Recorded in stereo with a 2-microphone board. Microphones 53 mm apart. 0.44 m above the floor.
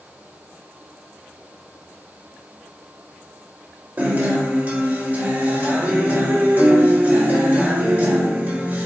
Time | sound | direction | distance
4.0 | a guitar | 35° right (ahead or behind) | 1.9 m